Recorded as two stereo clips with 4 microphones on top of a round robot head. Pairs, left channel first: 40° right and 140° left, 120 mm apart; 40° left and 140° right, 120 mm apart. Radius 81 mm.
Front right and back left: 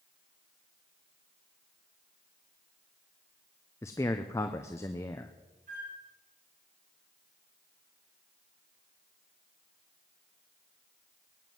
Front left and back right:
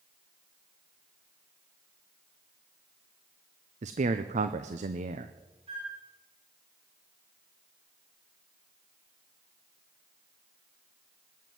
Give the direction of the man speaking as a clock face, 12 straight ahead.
4 o'clock.